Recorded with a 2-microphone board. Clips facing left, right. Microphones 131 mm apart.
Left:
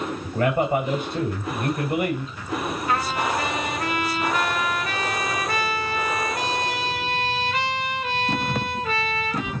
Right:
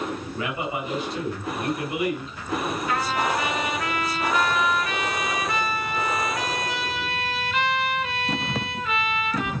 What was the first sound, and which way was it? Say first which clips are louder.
A man speaking: left 8 dB; 55° left (ahead or behind).